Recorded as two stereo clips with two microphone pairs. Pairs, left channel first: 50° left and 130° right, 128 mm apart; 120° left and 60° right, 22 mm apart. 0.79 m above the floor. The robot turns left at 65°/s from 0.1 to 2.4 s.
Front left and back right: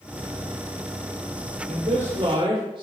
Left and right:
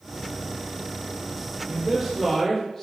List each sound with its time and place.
1.7 s a man speaking: 125° right, 3 m; by 2.8 s 175° right, 3 m